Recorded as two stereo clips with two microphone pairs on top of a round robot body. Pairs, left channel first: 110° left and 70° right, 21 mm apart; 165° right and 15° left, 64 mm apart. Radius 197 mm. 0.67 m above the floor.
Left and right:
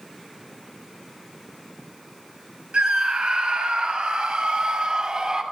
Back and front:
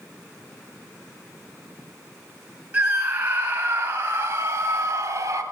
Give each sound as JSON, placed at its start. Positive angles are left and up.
{"t": 2.7, "sound": "a scream", "azimuth_deg": -55, "distance_m": 7.0}